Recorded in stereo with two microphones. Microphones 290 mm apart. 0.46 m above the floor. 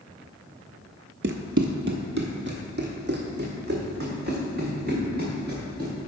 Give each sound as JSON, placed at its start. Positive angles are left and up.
{"t": 1.2, "sound": "running footsteps", "side_deg": -40, "distance_m": 0.5}